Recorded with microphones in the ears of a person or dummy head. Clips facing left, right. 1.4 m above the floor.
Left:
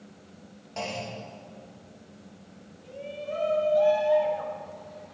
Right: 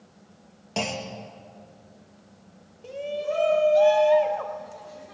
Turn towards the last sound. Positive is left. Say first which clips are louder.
# right 7 dB
turn(degrees=-85)